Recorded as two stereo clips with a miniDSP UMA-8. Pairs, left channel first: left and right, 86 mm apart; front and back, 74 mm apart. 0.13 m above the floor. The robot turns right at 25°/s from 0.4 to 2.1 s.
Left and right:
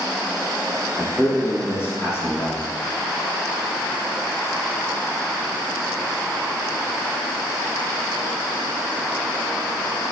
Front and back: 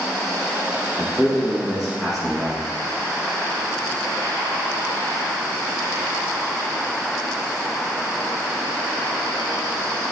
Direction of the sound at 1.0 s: 60° left.